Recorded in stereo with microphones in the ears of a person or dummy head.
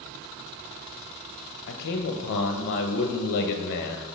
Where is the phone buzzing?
No phone buzzing in this recording.